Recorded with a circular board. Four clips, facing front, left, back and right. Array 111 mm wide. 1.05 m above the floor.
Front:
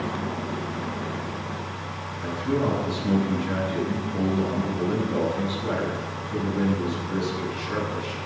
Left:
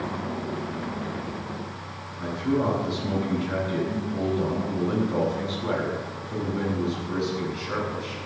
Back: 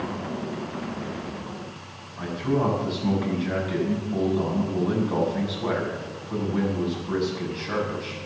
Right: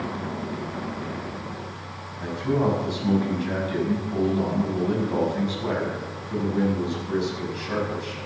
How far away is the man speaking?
About 6 m.